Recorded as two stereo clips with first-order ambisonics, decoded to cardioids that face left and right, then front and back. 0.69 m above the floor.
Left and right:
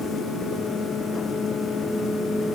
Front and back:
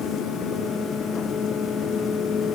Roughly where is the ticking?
I don't hear ticking.